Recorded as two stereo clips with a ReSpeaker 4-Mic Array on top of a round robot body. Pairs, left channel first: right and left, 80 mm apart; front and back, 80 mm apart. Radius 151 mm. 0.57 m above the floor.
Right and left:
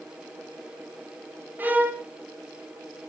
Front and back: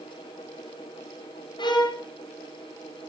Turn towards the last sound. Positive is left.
turn(degrees=20)